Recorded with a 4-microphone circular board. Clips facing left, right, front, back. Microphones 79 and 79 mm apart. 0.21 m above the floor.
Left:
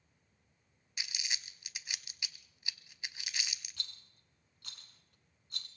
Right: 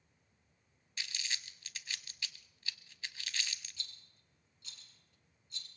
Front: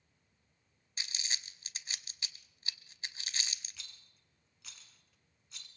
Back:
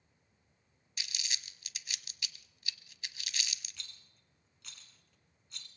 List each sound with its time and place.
1.0 s crumpling: 25° left, 0.7 m
3.8 s a rattle: 85° left, 1.6 m